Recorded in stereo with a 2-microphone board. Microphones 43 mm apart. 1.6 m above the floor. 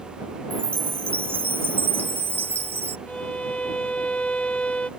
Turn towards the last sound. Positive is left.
turn(degrees=30)  # may be behind; listen again after turning